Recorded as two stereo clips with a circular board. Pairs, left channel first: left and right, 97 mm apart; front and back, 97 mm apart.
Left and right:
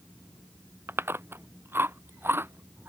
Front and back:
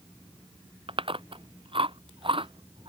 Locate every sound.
0.9 s chewing: 155° right